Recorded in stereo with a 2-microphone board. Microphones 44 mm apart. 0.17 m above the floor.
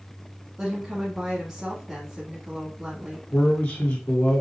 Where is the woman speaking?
15° right (ahead or behind), 1.2 m.